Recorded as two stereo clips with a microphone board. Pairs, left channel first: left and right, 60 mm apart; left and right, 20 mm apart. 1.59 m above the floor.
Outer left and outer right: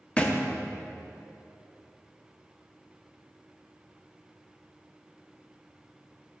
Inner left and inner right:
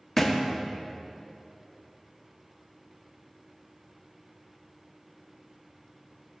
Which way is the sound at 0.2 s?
20° left (ahead or behind).